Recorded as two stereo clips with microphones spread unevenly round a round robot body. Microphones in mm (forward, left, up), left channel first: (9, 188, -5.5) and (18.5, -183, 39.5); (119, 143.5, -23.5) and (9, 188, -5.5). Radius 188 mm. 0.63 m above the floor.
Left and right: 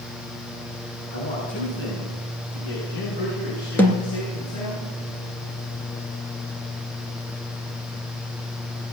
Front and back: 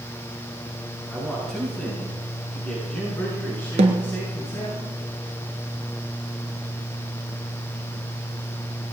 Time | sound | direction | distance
1.1 | a man speaking | 65° left | 7 m
3.8 | a snare drum | straight behind | 1.3 m